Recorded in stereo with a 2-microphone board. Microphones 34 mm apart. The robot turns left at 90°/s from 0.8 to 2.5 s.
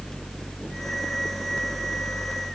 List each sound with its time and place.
Only background noise.